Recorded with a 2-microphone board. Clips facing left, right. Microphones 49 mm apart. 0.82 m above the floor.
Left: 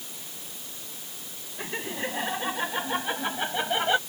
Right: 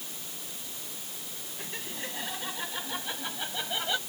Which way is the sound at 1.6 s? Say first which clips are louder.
Left 8 dB; 30° left (ahead or behind).